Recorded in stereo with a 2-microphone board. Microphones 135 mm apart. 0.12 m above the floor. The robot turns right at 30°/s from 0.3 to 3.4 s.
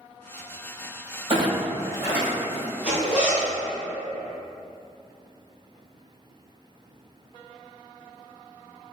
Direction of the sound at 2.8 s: 55° left (ahead or behind).